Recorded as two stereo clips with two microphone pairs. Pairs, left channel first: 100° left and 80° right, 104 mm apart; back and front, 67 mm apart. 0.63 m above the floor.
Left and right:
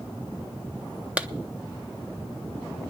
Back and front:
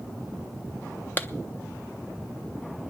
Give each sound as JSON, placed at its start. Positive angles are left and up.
{"t": 1.2, "sound": "a clap", "azimuth_deg": -150, "distance_m": 0.6}